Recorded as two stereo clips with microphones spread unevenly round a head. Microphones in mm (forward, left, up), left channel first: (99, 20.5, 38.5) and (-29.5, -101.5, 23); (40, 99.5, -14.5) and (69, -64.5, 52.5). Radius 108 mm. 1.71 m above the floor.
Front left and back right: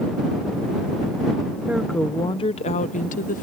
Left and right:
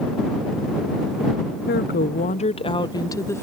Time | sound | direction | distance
1.7 | a woman speaking | 140° left | ?